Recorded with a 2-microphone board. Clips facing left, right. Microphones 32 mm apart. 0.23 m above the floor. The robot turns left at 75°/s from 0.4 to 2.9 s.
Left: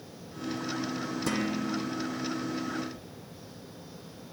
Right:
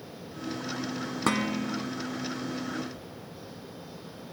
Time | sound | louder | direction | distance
1.3 | dishes clattering | right 3 dB | 100° right | 1.5 m